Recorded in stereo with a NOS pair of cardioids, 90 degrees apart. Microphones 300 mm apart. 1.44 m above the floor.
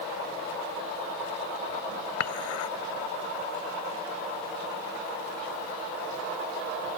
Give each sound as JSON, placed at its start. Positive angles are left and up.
{"t": 2.2, "sound": "dishes clattering", "azimuth_deg": 65}